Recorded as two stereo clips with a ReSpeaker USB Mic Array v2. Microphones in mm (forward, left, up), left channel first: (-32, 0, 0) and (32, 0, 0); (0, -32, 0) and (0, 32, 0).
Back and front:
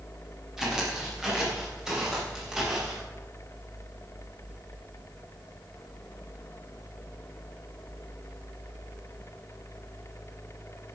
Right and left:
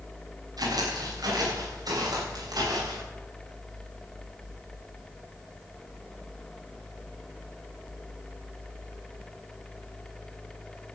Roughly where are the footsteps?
Left.